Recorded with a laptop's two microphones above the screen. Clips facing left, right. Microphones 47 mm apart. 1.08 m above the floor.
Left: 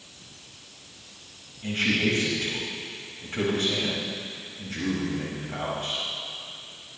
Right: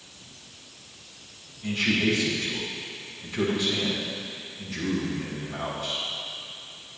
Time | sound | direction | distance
1.6 | a man speaking | 55° left (ahead or behind) | 5 m